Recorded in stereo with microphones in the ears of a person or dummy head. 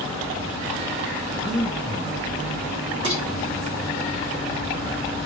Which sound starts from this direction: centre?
Breathing, at 1.4 s.